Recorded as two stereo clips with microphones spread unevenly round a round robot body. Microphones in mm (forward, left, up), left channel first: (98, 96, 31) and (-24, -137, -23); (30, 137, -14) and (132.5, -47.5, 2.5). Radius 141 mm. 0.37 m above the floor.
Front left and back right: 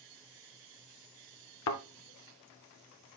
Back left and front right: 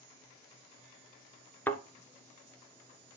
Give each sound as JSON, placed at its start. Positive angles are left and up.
{"t": 1.7, "sound": "a thud", "azimuth_deg": 35, "distance_m": 1.3}